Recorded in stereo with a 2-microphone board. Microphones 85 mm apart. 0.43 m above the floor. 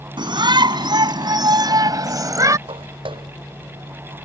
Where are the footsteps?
80° right.